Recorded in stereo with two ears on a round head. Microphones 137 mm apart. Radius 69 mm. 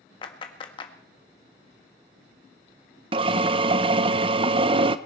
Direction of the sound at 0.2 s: 30° left (ahead or behind).